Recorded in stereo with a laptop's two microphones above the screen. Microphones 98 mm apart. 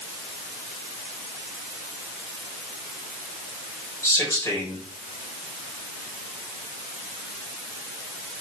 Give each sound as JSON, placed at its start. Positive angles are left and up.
{"t": 4.0, "sound": "a man speaking", "side_deg": 25, "distance_m": 3.5}